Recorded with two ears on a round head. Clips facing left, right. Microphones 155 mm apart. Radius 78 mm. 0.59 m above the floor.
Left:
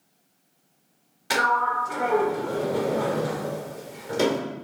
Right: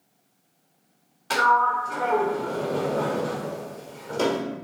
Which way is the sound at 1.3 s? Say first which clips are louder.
Right 3 dB; 15° left (ahead or behind).